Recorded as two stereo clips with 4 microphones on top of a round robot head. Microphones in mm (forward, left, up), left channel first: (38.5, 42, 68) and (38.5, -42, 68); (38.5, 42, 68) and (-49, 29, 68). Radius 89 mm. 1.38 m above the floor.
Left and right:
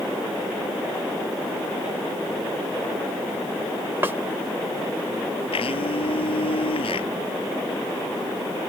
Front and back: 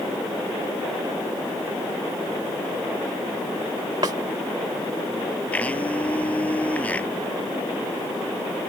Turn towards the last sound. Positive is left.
turn(degrees=85)